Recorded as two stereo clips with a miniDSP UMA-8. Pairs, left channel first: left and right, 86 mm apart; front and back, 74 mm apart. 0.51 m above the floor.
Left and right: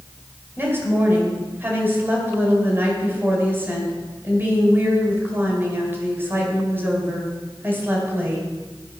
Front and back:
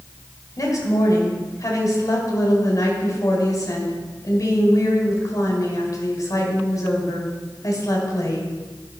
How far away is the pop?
I don't hear a pop.